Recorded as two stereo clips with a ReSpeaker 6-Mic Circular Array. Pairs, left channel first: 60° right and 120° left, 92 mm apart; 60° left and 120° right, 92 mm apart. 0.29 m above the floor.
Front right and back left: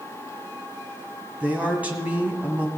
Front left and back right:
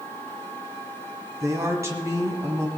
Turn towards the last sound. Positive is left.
turn(degrees=-170)